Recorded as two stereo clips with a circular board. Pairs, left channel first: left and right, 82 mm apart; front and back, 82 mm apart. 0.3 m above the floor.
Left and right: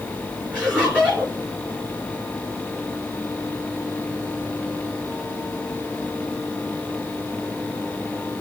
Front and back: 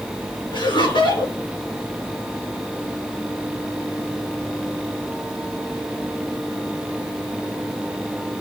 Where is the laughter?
10° right, 5.5 m.